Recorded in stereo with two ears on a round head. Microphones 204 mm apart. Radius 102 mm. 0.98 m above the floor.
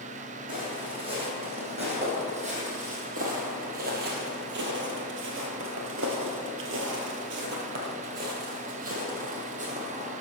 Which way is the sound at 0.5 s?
20° right (ahead or behind).